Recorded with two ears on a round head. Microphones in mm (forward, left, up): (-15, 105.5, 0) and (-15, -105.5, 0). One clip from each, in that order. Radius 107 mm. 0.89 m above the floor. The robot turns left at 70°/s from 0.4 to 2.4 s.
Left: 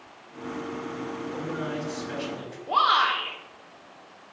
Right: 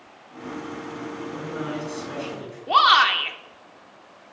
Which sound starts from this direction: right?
A shout, at 2.7 s.